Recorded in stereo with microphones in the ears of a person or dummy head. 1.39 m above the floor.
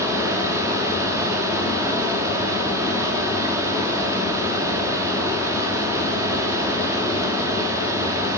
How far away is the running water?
About 2.5 m.